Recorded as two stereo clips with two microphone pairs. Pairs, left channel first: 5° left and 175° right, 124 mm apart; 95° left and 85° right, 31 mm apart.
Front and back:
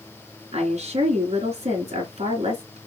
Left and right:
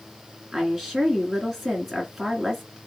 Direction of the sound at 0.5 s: 165° right.